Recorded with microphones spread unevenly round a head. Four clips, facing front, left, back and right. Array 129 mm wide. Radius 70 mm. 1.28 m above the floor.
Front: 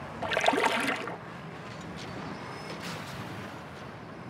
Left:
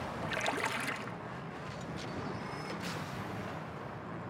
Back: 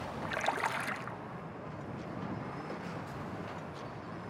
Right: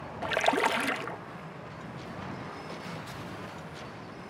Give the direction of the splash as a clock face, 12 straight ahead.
1 o'clock.